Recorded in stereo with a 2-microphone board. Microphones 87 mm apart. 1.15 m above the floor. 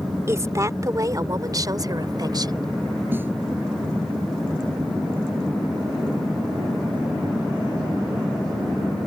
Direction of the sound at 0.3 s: 35° right (ahead or behind).